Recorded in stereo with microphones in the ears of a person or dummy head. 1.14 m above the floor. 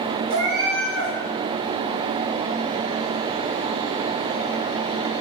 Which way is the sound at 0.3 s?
65° right (ahead or behind).